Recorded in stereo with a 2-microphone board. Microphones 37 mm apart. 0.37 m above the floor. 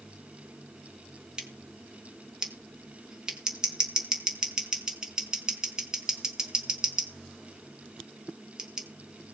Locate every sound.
1.4 s scissors: 20° right (ahead or behind), 4.5 m